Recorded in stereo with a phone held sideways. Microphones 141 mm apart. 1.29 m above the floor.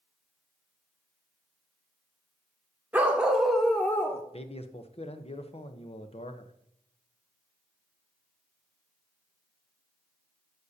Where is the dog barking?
10° right (ahead or behind), 1.2 m; by 4.2 s 20° left (ahead or behind), 0.8 m.